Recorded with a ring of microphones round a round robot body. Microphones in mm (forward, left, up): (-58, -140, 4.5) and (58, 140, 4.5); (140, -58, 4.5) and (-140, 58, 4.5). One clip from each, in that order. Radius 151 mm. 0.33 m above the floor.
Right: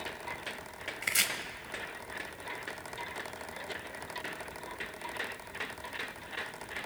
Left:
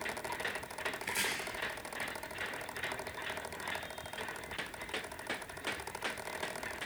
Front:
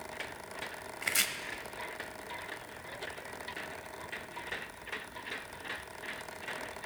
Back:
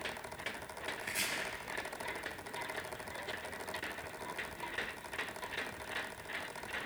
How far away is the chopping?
About 1.1 m.